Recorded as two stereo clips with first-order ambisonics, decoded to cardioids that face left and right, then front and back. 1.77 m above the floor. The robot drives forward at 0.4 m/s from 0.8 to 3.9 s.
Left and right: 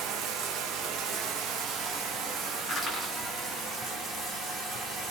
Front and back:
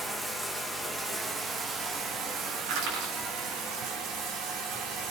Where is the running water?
105° right, 1.3 m; by 5.1 s 150° right, 2.0 m.